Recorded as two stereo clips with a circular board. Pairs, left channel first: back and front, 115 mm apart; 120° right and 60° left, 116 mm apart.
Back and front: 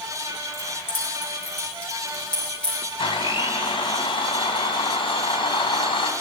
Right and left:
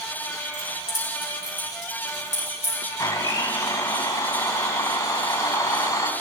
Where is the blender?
160° right, 1.9 m.